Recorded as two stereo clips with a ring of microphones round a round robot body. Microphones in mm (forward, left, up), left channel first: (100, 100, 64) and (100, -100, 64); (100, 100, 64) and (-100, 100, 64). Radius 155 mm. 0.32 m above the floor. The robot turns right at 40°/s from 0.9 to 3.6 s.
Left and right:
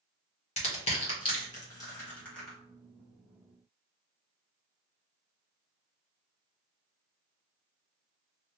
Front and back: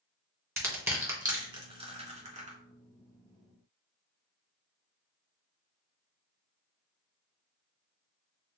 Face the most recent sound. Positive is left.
turn(degrees=-140)